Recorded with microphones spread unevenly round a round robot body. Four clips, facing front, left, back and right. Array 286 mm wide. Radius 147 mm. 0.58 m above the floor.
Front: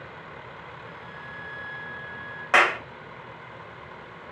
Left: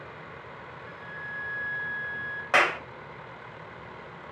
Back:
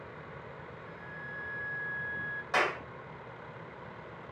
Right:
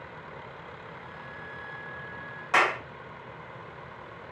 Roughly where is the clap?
Ahead left.